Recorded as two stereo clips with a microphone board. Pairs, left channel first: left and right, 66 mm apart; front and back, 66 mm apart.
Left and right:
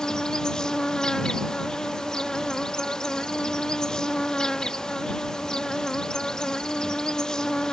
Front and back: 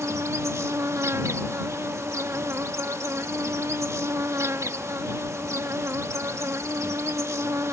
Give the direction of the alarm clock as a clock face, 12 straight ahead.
I don't hear an alarm clock.